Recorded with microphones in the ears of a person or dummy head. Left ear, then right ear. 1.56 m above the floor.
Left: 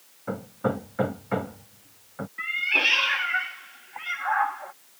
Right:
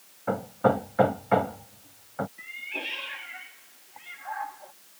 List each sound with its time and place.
0.3 s hammering: 15° right (ahead or behind)
2.4 s a cat meowing: 50° left (ahead or behind)